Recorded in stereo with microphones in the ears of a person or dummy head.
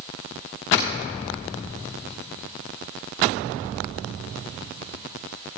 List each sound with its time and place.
0.7 s a finger snap: 40° left (ahead or behind), 3 m